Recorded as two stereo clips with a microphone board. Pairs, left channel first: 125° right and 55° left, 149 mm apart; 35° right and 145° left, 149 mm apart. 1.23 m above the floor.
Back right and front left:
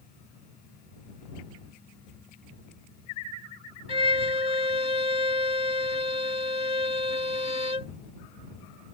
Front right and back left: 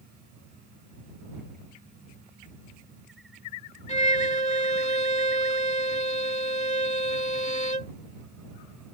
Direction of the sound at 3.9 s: 5° left.